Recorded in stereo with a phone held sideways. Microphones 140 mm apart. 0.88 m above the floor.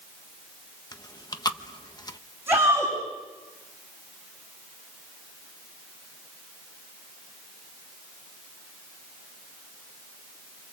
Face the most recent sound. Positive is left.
turn(degrees=-15)  # may be behind; listen again after turning